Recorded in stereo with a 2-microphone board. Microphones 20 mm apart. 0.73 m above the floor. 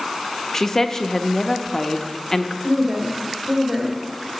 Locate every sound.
0.5 s a woman speaking: 20° left (ahead or behind), 0.6 m
2.6 s a woman speaking: 50° right (ahead or behind), 1.7 m